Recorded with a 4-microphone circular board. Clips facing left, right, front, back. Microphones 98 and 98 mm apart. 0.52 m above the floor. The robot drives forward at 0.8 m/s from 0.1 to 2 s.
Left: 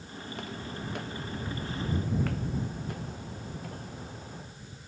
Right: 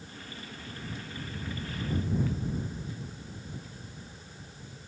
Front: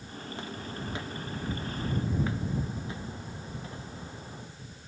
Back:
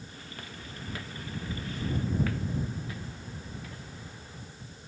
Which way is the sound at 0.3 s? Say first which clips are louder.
Left 7 dB, front 8 dB; 65° left.